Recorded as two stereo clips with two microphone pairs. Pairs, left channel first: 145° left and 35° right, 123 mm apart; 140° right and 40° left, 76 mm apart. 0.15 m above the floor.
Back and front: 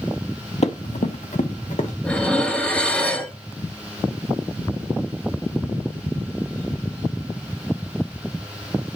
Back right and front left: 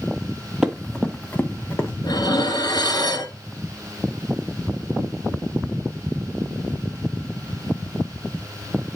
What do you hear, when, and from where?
0.6 s running footsteps: 120° left, 1.0 m; by 1.9 s 165° left, 1.5 m
2.0 s dishes clattering: 135° right, 1.4 m